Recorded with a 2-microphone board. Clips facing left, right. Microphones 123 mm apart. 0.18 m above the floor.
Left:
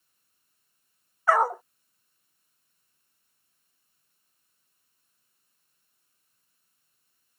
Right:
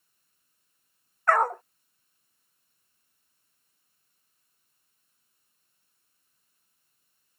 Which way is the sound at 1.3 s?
5° left (ahead or behind).